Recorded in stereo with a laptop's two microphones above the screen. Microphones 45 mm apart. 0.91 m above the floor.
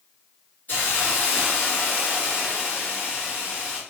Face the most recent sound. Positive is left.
turn(degrees=40)  # may be behind; listen again after turning